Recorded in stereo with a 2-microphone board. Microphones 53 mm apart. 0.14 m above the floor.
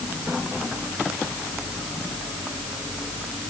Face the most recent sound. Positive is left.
No sound to turn to.